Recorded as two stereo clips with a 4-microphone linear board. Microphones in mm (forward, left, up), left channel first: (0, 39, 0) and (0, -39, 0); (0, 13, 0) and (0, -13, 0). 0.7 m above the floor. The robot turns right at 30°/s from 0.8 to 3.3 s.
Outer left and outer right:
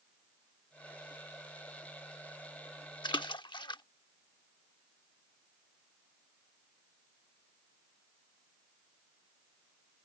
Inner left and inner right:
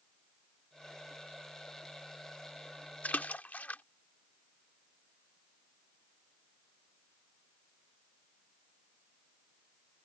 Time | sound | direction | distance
3.0 | a splash | 80° left | ?